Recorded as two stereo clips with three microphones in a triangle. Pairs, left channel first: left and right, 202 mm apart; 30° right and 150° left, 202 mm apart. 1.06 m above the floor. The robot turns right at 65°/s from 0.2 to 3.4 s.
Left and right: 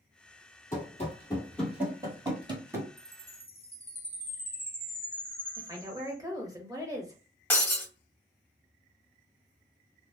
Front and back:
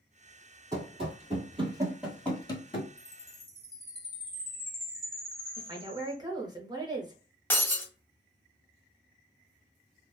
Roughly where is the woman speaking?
Behind right.